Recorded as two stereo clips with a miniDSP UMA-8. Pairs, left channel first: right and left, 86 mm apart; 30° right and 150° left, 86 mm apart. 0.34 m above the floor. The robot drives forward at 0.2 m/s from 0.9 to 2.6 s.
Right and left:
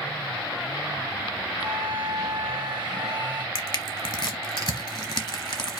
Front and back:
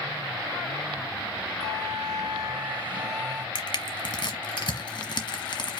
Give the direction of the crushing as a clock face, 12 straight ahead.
2 o'clock.